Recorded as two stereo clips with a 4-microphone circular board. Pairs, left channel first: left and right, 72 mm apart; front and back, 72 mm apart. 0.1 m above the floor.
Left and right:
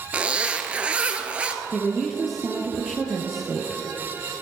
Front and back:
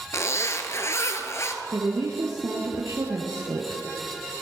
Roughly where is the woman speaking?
Behind.